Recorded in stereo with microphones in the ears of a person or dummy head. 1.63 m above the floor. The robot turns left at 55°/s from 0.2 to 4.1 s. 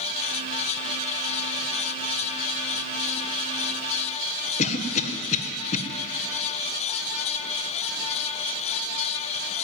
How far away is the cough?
About 1.5 m.